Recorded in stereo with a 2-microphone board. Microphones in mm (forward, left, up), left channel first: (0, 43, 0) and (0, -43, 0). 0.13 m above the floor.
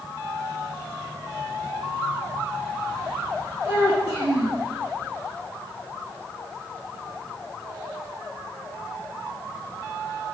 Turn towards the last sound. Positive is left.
turn(degrees=-35)  # may be behind; listen again after turning